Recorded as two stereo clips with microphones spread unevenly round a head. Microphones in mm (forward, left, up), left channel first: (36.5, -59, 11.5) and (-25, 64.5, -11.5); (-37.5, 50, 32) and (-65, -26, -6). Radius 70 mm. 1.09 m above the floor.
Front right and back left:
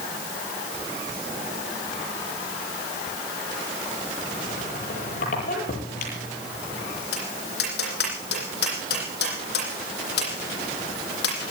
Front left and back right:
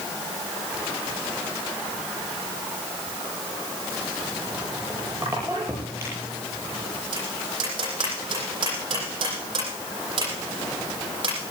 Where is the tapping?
60° right, 9.5 m.